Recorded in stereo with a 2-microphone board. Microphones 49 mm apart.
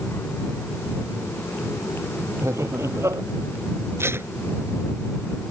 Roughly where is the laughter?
Right.